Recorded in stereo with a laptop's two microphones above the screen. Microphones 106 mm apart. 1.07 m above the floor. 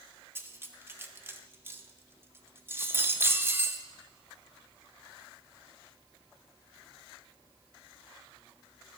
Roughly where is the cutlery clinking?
Right.